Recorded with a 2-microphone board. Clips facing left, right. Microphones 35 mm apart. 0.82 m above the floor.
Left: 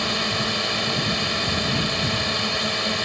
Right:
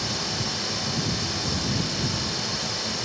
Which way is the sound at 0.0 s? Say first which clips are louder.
Left 6 dB; 40° left (ahead or behind).